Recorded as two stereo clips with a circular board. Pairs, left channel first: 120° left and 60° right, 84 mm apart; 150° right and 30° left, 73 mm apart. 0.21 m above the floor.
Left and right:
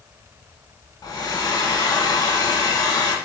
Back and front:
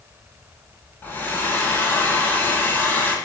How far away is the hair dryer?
About 1.0 m.